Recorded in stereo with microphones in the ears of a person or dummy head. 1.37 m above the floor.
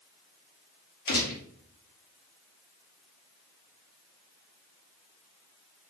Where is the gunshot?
60° left (ahead or behind), 2.5 m.